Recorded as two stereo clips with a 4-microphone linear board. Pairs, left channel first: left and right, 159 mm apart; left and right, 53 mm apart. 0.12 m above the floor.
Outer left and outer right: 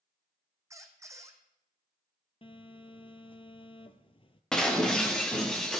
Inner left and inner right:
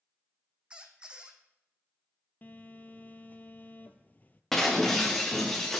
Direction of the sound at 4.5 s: 5° left (ahead or behind).